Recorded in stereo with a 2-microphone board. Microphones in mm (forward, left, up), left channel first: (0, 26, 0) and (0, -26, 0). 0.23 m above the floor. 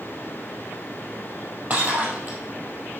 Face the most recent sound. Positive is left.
turn(degrees=-35)  # may be behind; listen again after turning